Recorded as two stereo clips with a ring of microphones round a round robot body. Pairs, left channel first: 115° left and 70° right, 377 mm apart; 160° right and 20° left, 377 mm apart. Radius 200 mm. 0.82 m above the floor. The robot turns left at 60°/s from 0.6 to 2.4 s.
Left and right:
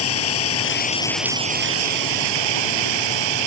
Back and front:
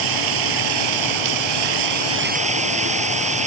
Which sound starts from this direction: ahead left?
Running water, at 0.0 s.